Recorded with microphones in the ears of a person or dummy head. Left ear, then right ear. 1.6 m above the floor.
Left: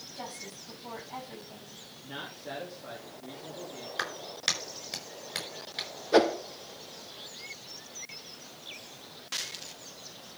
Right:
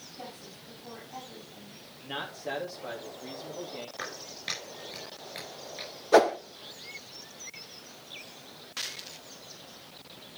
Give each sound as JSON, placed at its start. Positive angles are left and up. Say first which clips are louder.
{"t": 0.1, "sound": "a woman speaking", "louder": "left 4 dB", "side_deg": 65, "distance_m": 7.0}
{"t": 2.0, "sound": "a man speaking", "louder": "right 5 dB", "side_deg": -35, "distance_m": 3.0}
{"t": 4.0, "sound": "a clap", "louder": "left 10 dB", "side_deg": 45, "distance_m": 5.0}
{"t": 6.1, "sound": "a whoosh", "louder": "right 3 dB", "side_deg": -30, "distance_m": 0.7}